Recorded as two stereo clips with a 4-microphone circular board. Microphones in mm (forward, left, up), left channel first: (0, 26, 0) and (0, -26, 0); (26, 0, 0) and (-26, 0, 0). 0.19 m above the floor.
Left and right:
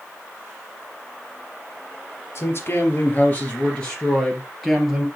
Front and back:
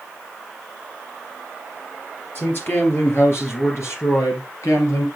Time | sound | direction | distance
2.4 | a man speaking | 50° left | 3.5 m